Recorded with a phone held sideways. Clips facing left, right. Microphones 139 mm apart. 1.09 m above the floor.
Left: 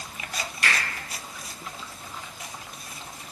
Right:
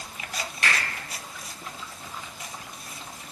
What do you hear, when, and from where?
0.6 s a finger snap: 55° right (ahead or behind), 2.0 m